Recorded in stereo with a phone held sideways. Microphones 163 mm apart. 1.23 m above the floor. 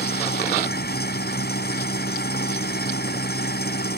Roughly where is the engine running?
Left.